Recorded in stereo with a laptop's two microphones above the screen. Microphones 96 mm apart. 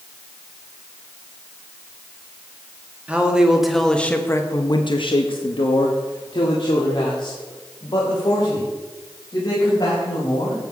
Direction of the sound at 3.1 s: 15° right (ahead or behind).